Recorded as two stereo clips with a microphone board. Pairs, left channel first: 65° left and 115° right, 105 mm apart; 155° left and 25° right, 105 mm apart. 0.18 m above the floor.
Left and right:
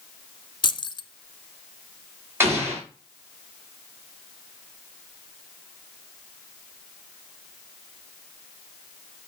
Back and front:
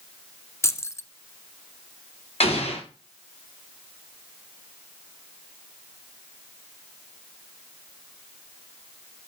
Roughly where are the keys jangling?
Left.